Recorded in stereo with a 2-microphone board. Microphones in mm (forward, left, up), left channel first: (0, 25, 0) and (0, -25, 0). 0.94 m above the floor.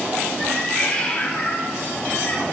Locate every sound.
0.4 s a cat meowing: 15° left (ahead or behind), 2 m; by 2.5 s 25° left (ahead or behind), 3.5 m